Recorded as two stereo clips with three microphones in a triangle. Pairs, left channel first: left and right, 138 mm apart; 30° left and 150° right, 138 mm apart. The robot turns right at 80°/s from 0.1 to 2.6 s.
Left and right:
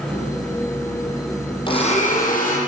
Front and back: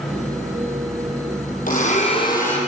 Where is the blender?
40° left, 8.5 m; by 2.6 s 110° left, 8.5 m.